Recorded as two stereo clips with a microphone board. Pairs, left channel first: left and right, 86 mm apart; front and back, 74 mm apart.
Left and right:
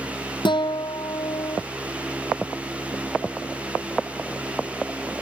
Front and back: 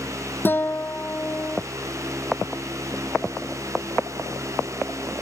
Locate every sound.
0.5 s a guitar: 65° left